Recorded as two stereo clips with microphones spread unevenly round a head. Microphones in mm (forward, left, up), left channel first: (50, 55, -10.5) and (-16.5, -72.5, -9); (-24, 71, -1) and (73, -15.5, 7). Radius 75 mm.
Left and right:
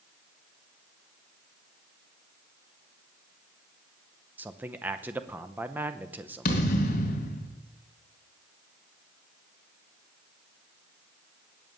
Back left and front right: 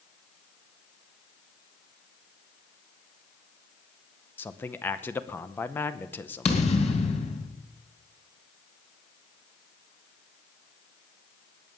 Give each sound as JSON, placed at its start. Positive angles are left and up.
{"t": 4.4, "sound": "a man speaking", "azimuth_deg": 180, "distance_m": 0.6}
{"t": 6.5, "sound": "a thud", "azimuth_deg": 100, "distance_m": 2.5}